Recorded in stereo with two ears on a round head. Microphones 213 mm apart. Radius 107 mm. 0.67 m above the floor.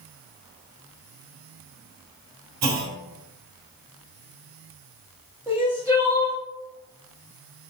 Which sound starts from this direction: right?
A clunk, at 2.6 s.